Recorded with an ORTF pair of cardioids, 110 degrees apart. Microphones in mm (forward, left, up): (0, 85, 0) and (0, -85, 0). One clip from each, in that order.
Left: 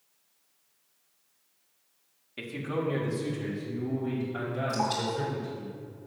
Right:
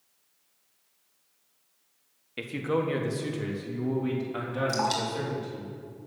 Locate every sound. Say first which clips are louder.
2.4 s a man speaking: right 4 dB; 25° right, 1.5 m; by 5.7 s 60° right, 6 m
4.7 s dripping: right 1 dB; 60° right, 2.5 m